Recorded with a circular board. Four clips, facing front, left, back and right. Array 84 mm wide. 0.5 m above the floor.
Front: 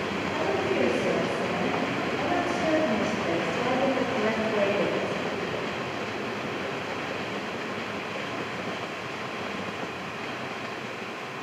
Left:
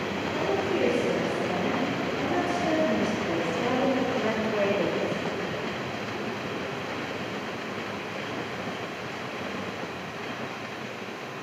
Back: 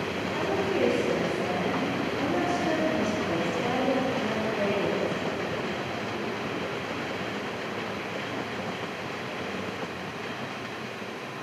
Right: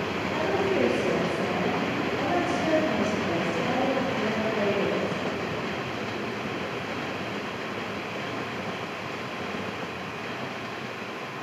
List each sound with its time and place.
0.3 s a woman speaking: 40° right, 2.5 m; by 5.2 s 45° left, 1.5 m